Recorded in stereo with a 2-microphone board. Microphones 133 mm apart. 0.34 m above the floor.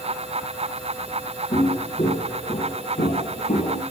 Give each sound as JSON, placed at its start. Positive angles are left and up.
{"t": 1.5, "sound": "footsteps", "side_deg": 65, "distance_m": 8.0}